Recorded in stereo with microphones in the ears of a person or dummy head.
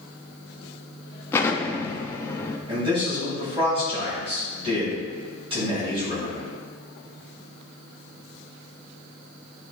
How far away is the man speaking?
About 2.5 m.